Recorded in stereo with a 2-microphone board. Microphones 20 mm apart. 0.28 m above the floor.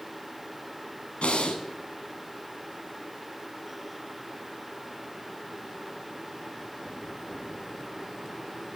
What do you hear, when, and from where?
1.2 s breathing: 75° left (ahead or behind), 0.7 m